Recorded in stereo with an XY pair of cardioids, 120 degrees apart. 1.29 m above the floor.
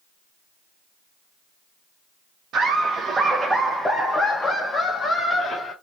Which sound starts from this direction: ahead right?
Laughter, at 2.5 s.